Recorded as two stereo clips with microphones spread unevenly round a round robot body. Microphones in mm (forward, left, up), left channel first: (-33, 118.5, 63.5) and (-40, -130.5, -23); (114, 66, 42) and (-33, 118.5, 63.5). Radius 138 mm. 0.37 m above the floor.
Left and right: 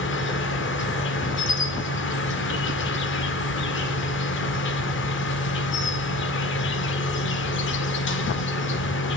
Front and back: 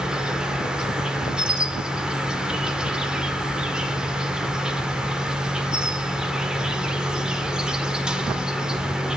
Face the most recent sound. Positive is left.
turn(degrees=65)